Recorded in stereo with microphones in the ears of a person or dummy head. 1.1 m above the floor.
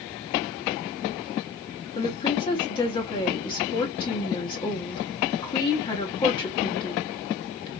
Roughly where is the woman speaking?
Left.